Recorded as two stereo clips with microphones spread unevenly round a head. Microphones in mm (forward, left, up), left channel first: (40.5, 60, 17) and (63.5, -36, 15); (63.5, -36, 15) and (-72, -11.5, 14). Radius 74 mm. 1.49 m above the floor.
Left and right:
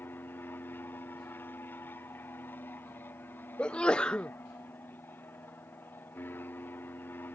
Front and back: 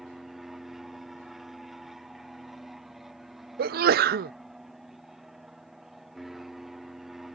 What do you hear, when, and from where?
0.0 s an aircraft: 85° left
3.6 s a sneeze: 175° right